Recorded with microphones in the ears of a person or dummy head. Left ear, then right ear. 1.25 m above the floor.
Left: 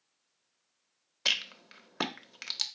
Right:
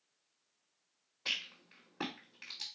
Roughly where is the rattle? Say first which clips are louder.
Left 8 dB; left.